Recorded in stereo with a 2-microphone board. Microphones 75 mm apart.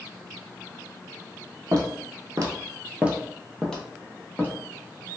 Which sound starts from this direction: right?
Footsteps, at 1.7 s.